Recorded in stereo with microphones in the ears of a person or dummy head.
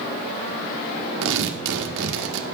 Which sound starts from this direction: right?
Tearing paper, at 1.2 s.